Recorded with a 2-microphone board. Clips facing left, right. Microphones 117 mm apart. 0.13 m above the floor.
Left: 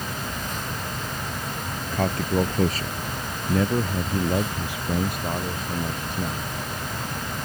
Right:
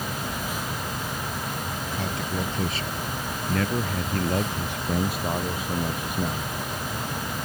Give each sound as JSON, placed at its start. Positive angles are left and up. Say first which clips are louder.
{"t": 1.9, "sound": "a man speaking", "louder": "left 8 dB", "side_deg": 60}